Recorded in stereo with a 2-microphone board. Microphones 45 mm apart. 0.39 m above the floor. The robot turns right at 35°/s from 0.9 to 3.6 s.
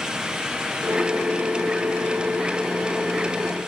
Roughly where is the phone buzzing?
No phone buzzing in this recording.